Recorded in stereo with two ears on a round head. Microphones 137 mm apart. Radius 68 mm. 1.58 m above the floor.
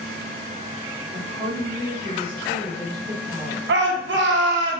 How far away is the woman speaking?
About 1.0 m.